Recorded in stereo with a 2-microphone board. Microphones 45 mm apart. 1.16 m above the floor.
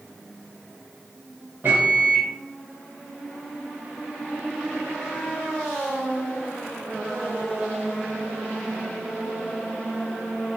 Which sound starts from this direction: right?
A microwave, at 1.6 s.